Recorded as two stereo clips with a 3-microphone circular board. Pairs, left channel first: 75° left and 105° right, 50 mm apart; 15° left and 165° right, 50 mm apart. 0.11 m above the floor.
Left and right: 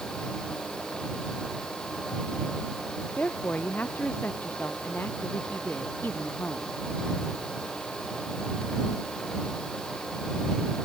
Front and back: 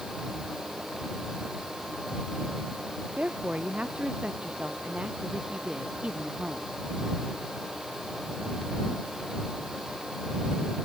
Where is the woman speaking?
130° left; by 6.7 s 125° left.